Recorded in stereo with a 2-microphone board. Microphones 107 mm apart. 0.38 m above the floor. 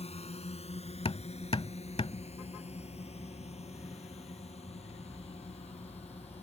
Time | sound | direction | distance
0.0 | a drone | 75° left (ahead or behind) | ?
1.1 | hammering | 65° left (ahead or behind) | ?